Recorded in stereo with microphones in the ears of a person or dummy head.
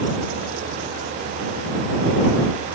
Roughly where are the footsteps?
I don't hear footsteps.